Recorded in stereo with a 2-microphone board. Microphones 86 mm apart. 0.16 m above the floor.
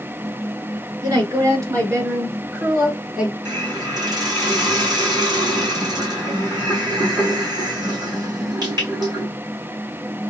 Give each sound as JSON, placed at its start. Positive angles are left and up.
{"t": 1.0, "sound": "a woman speaking", "side_deg": -50, "distance_m": 1.8}
{"t": 3.5, "sound": "a hiss", "side_deg": -50, "distance_m": 2.0}